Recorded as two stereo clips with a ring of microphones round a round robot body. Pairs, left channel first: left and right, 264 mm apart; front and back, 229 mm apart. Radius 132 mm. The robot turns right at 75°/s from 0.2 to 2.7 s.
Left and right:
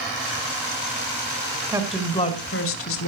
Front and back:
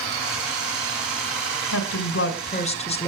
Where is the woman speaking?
15° right, 2.5 m; by 3.1 s 60° left, 2.5 m.